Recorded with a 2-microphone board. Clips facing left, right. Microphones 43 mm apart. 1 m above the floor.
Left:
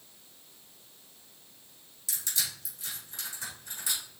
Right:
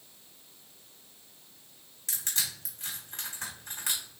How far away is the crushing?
About 3.5 m.